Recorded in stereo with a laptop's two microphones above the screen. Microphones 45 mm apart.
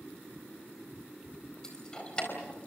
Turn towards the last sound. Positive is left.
turn(degrees=25)  # may be behind; listen again after turning